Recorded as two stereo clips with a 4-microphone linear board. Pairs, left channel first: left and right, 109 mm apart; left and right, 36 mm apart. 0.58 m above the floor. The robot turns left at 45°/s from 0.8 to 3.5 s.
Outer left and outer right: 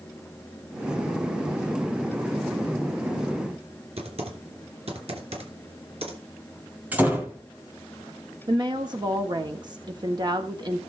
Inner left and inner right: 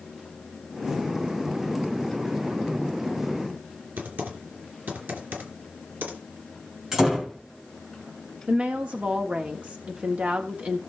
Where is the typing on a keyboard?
65° right (ahead or behind), 2.5 m.